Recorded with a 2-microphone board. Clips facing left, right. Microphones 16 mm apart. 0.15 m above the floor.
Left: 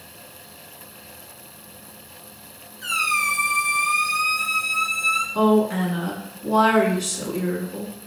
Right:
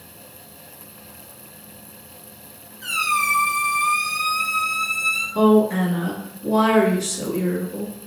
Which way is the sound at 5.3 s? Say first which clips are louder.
Right 5 dB; 25° left (ahead or behind).